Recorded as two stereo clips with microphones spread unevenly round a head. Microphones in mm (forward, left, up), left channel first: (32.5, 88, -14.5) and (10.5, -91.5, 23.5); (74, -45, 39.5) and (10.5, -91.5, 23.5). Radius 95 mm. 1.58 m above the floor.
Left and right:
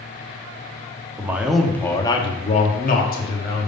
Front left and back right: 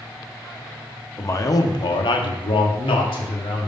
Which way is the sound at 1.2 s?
20° right.